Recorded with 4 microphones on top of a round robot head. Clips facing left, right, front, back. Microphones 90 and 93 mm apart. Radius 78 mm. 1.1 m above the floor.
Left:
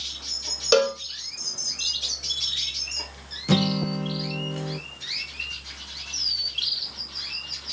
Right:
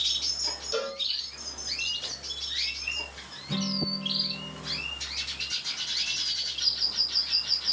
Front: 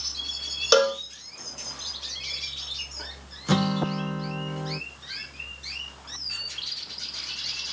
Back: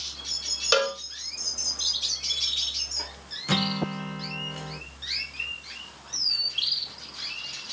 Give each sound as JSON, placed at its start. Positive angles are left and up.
{"t": 0.7, "sound": "a cowbell", "azimuth_deg": 65, "distance_m": 1.0}
{"t": 3.5, "sound": "a guitar", "azimuth_deg": 70, "distance_m": 0.8}